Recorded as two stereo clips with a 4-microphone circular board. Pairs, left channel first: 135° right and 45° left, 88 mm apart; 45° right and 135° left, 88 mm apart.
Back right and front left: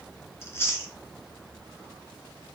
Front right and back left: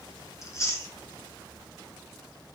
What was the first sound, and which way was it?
Chewing, 85° right.